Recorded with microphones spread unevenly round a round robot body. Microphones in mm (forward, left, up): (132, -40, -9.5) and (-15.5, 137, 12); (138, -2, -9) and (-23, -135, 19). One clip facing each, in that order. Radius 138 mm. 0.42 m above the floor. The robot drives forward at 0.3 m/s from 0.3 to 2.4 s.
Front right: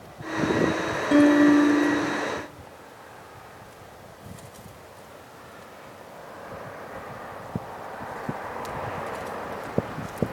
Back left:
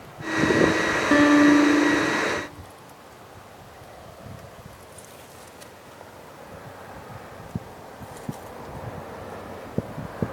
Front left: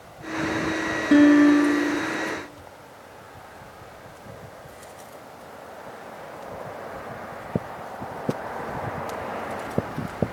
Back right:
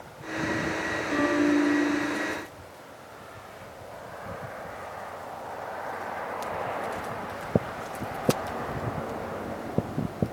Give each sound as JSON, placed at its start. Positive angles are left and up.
{"t": 1.1, "sound": "a guitar", "azimuth_deg": 50, "distance_m": 3.5}